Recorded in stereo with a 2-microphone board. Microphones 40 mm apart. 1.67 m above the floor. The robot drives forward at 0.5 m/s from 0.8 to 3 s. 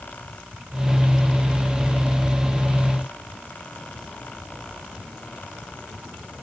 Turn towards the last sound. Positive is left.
No sound to turn to.